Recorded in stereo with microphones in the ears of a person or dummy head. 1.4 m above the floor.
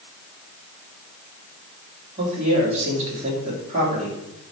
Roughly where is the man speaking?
Right.